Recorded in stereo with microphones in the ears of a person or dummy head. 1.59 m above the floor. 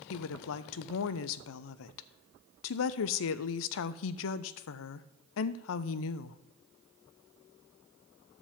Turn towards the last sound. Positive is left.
turn(degrees=70)  # may be behind; listen again after turning